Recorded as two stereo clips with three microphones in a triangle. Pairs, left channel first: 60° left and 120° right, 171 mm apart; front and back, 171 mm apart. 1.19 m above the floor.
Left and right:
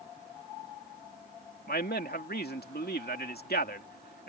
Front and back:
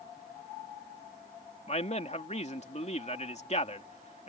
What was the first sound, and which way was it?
A man speaking, 45° left.